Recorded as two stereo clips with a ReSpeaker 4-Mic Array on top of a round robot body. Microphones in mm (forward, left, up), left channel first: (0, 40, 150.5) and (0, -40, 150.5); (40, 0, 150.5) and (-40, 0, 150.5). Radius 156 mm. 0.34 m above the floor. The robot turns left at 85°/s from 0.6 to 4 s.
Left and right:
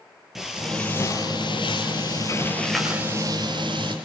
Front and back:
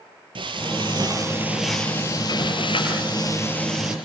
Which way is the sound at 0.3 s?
Straight behind.